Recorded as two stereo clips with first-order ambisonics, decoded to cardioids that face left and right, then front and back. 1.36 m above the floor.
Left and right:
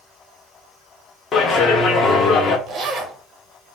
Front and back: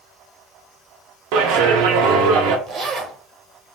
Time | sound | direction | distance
1.3 | a clap | 150° left | 0.6 m
2.7 | a zipper | 135° right | 0.6 m